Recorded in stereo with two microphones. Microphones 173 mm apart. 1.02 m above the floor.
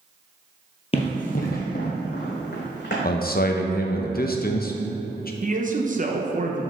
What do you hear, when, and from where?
0.9 s running footsteps: 35° left (ahead or behind), 1.2 m; by 2.9 s 75° left (ahead or behind), 3.5 m
3.0 s a man speaking: 55° left (ahead or behind), 0.6 m
5.4 s a man speaking: 45° right (ahead or behind), 0.8 m